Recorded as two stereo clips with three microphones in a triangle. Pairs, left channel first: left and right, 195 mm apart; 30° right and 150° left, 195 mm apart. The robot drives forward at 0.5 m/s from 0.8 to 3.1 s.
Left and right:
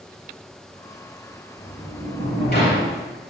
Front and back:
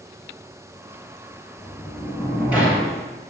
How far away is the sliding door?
About 3 m.